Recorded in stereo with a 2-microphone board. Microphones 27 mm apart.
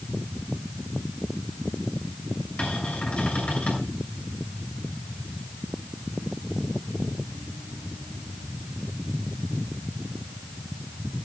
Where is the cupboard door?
50° left (ahead or behind), 6.5 m.